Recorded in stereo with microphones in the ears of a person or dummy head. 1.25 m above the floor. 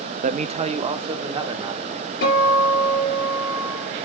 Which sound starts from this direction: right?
A man speaking, at 0.2 s.